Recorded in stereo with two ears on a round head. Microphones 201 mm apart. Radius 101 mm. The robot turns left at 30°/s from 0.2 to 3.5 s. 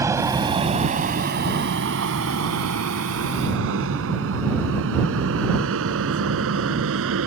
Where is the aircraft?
15° right (ahead or behind); by 7.3 s 70° right (ahead or behind).